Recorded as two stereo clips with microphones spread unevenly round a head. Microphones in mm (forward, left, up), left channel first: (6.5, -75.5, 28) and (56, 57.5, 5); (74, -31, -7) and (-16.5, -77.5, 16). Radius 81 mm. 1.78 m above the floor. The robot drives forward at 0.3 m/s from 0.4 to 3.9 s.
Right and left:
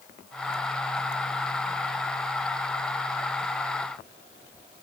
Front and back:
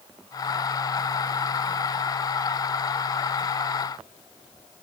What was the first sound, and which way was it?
Only background noise.